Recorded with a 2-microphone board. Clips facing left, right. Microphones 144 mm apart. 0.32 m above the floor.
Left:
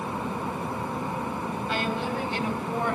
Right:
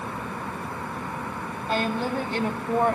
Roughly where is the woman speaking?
Right.